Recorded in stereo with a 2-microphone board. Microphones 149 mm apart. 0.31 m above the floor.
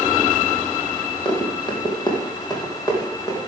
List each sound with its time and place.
1.2 s running footsteps: 35° left (ahead or behind), 4 m; by 3.4 s 20° left (ahead or behind), 5 m